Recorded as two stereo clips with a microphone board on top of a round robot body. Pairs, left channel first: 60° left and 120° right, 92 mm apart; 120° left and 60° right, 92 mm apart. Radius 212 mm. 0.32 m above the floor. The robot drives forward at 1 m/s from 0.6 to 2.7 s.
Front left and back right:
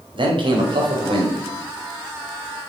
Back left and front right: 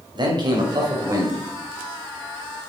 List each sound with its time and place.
0.1 s a man speaking: 95° right, 2.5 m; by 1.4 s 115° right, 2.5 m